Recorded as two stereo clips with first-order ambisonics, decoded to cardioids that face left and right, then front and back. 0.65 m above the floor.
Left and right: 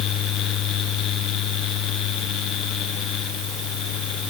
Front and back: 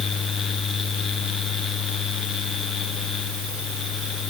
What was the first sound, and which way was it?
Only background noise.